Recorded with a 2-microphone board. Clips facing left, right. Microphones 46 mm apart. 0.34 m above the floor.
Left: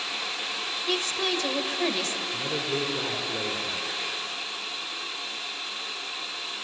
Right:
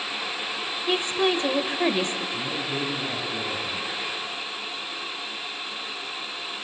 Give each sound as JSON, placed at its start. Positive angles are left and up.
{"t": 0.9, "sound": "a woman speaking", "side_deg": -20, "distance_m": 1.5}
{"t": 2.3, "sound": "a man speaking", "side_deg": 60, "distance_m": 4.0}